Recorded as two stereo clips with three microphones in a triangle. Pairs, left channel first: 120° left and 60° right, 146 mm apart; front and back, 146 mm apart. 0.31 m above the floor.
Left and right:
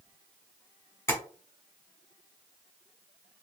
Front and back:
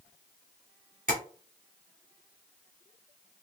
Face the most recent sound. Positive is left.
turn(degrees=-170)